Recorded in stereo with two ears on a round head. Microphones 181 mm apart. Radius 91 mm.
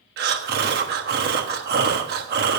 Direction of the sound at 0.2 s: 50° right (ahead or behind).